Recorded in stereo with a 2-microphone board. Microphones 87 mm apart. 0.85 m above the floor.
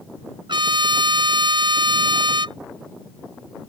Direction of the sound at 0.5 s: 70° right (ahead or behind).